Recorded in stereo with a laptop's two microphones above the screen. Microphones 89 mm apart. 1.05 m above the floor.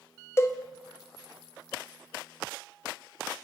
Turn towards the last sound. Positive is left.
turn(degrees=30)  # may be behind; listen again after turning